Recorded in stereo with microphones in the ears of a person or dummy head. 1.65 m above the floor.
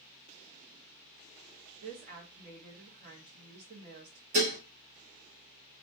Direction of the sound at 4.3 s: 50° right (ahead or behind).